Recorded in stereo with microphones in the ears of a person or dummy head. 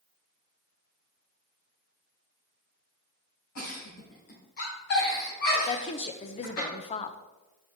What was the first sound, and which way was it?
A giggle, 50° left (ahead or behind).